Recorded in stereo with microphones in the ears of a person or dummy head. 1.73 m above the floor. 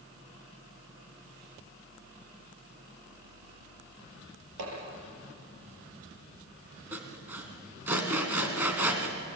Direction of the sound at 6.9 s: 15° right (ahead or behind).